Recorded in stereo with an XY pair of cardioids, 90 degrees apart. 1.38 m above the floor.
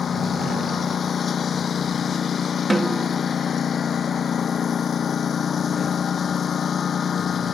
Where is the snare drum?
15° right.